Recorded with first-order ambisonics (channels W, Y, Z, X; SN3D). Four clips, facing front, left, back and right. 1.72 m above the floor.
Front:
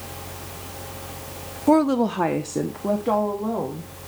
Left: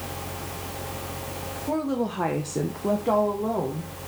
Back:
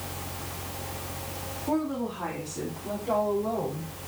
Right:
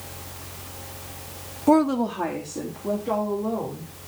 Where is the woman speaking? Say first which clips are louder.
Right 8 dB, front 11 dB; 50° right, 0.5 m; by 3.9 s 45° left, 2 m.